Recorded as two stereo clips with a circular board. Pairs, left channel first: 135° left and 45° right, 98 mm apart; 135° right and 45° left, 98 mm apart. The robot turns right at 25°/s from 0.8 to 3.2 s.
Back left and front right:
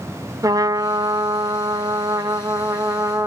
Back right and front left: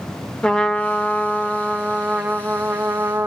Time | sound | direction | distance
0.4 | a trumpet | 60° right | 0.5 m